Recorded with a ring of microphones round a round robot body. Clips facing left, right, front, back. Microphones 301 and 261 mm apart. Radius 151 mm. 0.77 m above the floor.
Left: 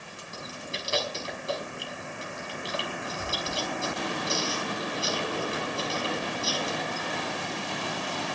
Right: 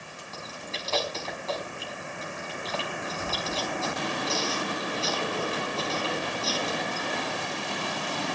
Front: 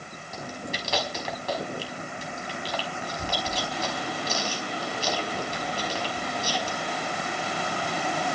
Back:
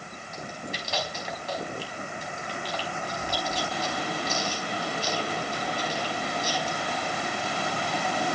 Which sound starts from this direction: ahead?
Chewing, at 0.3 s.